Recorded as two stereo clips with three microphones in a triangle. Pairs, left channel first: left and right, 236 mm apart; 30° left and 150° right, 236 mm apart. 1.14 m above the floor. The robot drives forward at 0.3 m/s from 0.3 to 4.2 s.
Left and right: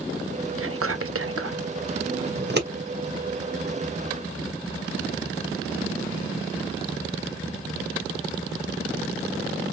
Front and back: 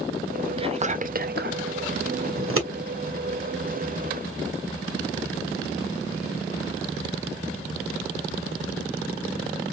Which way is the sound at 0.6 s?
80° right.